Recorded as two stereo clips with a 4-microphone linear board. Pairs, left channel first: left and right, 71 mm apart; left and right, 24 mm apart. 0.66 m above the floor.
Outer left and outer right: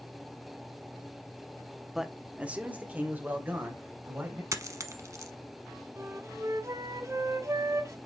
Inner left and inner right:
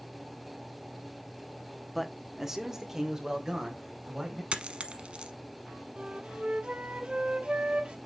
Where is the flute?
45° right (ahead or behind), 0.9 m.